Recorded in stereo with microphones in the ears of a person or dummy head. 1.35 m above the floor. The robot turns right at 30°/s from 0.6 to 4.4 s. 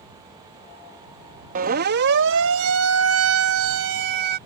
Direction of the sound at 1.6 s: 45° right (ahead or behind).